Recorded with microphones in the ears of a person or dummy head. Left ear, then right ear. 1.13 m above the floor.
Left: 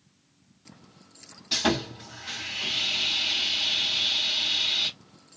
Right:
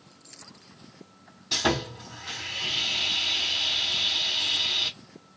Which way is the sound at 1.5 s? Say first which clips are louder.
Even; 5° left (ahead or behind).